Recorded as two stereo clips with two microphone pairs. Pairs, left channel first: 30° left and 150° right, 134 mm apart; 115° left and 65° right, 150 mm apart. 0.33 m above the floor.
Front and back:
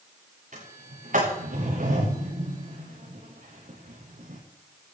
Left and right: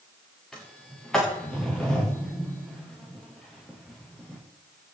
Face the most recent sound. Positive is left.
turn(degrees=-155)